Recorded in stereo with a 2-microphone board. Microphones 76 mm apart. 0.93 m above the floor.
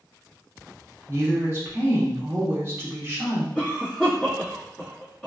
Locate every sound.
1.1 s a woman speaking: 30° right (ahead or behind), 1.3 m
3.5 s a cough: 20° left (ahead or behind), 1.8 m